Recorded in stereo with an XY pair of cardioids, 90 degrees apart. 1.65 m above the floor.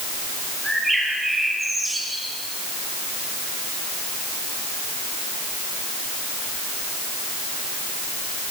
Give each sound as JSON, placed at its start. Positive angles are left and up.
{"t": 0.6, "sound": "a bird", "azimuth_deg": -5, "distance_m": 7.0}